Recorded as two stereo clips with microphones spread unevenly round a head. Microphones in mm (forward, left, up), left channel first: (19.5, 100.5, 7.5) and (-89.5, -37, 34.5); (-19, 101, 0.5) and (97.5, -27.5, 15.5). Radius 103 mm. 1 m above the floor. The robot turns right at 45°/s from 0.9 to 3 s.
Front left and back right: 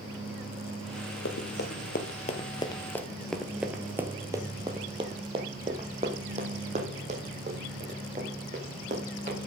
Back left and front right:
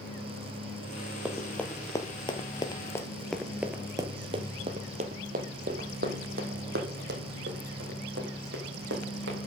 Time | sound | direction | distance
1.2 | running footsteps | 30° left | 1.4 m